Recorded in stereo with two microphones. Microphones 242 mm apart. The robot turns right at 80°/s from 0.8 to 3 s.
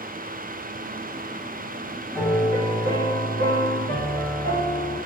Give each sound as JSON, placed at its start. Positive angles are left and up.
{"t": 2.1, "sound": "a piano", "azimuth_deg": -175, "distance_m": 1.7}